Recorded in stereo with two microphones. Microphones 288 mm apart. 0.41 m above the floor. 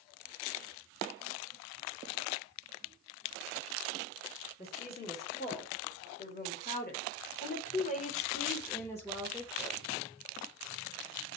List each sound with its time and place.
4.6 s a woman speaking: 30° left (ahead or behind), 2.5 m; by 9.9 s 5° right (ahead or behind), 1.3 m